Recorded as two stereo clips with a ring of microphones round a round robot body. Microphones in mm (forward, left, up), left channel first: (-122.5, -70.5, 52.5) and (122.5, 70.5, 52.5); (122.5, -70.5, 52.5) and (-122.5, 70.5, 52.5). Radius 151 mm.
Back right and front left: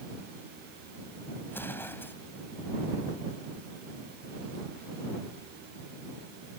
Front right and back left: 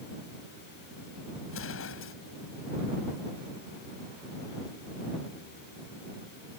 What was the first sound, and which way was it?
An explosion, 70° right.